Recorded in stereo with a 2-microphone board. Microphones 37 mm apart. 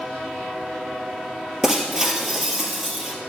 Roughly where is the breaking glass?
Centre.